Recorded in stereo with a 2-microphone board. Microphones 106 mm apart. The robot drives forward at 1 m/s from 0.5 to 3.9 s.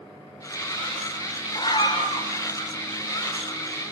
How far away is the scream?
About 3.5 m.